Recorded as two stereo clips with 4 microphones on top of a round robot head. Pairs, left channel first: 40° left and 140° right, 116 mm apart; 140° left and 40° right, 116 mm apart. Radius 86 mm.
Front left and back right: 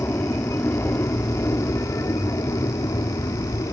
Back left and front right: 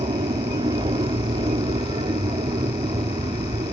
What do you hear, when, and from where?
0.0 s an aircraft: 25° right; by 3.7 s 10° right